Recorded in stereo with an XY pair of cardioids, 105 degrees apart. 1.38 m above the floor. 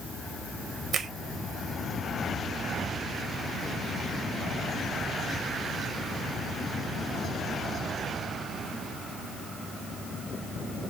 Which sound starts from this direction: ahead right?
A finger snap, at 0.9 s.